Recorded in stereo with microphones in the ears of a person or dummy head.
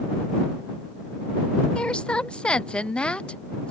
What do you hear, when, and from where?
1.8 s a woman speaking: 5° left (ahead or behind)